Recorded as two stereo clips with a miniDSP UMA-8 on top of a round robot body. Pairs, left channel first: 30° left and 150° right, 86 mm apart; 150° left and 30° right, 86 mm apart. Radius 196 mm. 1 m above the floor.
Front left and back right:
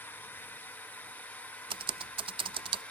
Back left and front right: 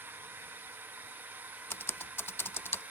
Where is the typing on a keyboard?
145° right.